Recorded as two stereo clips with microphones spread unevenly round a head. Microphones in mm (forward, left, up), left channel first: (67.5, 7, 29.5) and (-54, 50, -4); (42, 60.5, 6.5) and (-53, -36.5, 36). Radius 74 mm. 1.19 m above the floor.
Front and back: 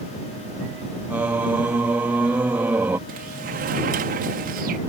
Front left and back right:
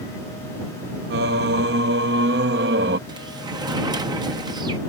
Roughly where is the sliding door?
Behind.